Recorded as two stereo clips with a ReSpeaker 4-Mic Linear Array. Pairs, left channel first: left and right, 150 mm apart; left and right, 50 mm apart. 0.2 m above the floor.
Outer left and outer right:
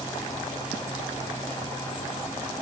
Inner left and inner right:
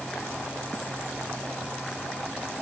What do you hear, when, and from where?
Only background noise.